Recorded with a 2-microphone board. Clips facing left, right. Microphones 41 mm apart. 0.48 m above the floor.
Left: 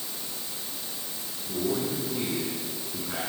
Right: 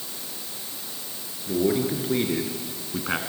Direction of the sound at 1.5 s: 65° right (ahead or behind).